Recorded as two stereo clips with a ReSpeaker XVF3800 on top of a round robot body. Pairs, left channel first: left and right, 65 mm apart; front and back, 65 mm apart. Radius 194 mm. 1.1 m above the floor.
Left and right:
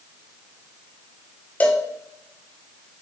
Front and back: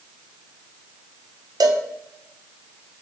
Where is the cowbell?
155° left, 1.0 m.